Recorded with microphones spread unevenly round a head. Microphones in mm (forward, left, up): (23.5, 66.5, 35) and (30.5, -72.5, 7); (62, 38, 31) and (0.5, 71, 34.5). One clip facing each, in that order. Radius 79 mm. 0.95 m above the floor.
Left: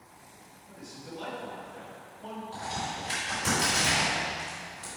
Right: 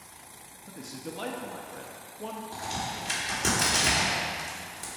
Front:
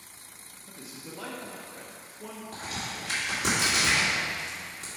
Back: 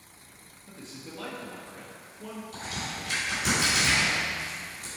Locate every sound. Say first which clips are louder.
0.7 s a man speaking: right 4 dB, back 1 dB; 110° right, 0.9 m
2.5 s a crack: even, front 1 dB; 60° right, 2 m